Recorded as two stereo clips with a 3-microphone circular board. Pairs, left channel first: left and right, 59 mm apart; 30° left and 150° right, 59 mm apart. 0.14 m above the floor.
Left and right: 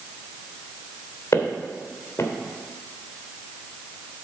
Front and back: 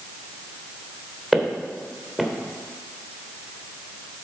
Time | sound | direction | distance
1.3 | footsteps | 125° left | 1.9 m